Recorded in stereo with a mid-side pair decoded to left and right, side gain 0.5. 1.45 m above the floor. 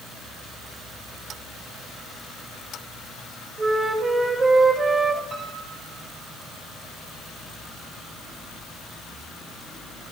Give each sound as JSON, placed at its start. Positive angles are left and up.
{"t": 3.6, "sound": "a flute", "azimuth_deg": -25, "distance_m": 5.5}
{"t": 5.3, "sound": "a piano", "azimuth_deg": -35, "distance_m": 7.5}